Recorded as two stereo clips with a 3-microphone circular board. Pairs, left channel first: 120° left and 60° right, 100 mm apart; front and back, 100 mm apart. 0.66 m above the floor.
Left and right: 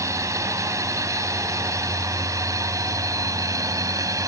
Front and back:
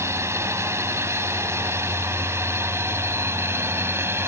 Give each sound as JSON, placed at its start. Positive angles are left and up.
{"t": 0.0, "sound": "a drone", "azimuth_deg": -120}